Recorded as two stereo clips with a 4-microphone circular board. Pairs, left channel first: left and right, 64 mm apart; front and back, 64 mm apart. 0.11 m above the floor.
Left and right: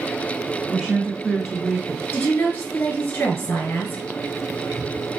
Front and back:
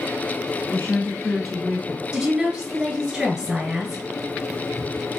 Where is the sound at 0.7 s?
25° right, 1.2 m; by 2.0 s 170° right, 1.1 m.